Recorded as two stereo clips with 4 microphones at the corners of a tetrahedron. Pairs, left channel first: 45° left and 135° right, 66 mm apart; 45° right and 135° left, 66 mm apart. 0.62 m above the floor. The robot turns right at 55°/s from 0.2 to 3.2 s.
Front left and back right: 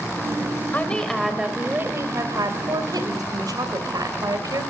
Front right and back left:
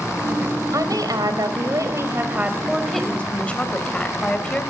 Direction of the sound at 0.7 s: 110° left.